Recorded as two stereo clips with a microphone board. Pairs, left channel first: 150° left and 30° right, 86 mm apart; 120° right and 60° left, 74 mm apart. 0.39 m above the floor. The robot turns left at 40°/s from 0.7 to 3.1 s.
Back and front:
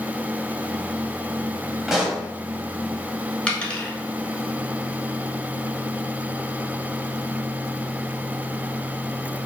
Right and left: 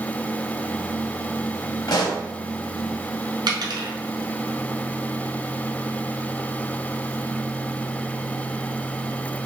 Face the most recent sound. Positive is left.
turn(degrees=70)